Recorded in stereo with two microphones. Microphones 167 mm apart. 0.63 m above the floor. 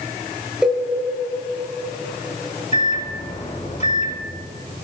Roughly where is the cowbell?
Centre.